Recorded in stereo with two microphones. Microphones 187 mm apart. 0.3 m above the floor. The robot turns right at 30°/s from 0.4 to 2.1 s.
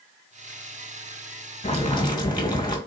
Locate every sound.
1.6 s boiling: 35° left (ahead or behind), 2.5 m; by 2.8 s 25° left (ahead or behind), 2.5 m